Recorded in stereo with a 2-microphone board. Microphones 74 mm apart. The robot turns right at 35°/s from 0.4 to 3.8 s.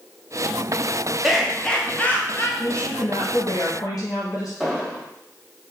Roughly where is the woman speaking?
Left.